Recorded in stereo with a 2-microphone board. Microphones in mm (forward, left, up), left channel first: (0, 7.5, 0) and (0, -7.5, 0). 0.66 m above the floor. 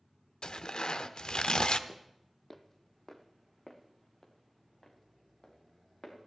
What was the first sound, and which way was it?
Tearing paper, 85° left.